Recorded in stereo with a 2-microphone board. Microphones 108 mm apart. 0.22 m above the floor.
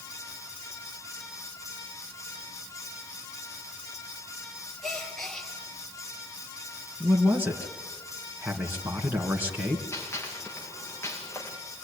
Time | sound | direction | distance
4.8 | a gasp | 5° left (ahead or behind) | 4.5 m
7.0 | a man speaking | 20° right (ahead or behind) | 3 m
9.9 | a gunshot | 20° left (ahead or behind) | 6.5 m